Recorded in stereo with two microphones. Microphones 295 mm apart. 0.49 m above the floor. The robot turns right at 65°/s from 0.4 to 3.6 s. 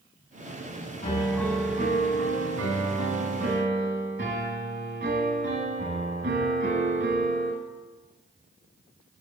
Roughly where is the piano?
Behind.